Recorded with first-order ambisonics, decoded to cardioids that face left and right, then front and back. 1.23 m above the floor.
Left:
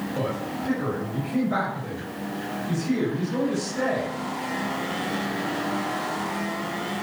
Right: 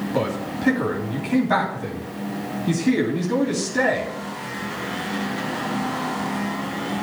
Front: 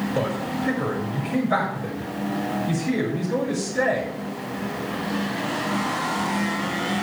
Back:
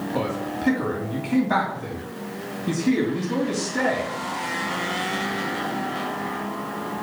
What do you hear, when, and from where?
0.1 s a man speaking: 120° right, 3 m